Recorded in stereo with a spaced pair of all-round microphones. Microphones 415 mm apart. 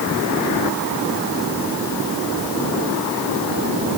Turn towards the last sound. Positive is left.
No sound to turn to.